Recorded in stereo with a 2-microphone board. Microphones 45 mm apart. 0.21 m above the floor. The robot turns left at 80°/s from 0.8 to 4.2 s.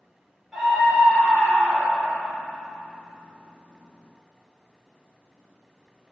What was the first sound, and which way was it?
A scream, 175° left.